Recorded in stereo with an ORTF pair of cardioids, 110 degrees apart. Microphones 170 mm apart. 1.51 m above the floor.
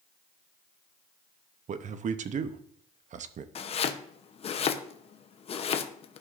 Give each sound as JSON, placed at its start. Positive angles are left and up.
{"t": 1.7, "sound": "a man speaking", "azimuth_deg": -45, "distance_m": 0.7}
{"t": 3.5, "sound": "chopping", "azimuth_deg": 40, "distance_m": 0.8}